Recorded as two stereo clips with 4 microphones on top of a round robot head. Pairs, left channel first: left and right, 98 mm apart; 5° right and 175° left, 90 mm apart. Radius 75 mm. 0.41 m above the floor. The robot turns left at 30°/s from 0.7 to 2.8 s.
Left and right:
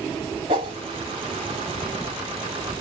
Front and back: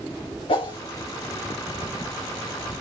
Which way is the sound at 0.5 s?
40° right.